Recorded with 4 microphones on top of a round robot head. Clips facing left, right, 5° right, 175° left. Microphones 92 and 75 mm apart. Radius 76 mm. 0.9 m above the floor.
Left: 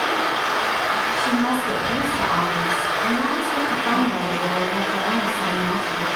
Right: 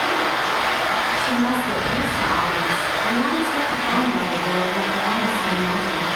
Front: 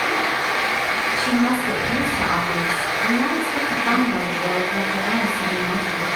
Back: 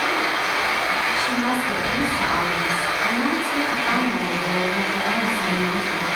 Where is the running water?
35° left, 1.9 m.